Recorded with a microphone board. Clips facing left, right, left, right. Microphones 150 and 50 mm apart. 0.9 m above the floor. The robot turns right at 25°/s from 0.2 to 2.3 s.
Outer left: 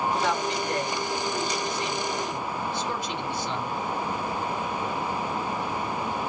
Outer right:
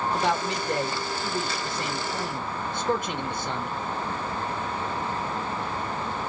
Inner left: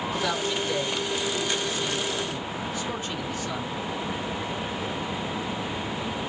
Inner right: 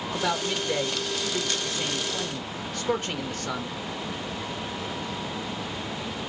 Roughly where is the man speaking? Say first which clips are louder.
Even, inner right 2 dB; behind right.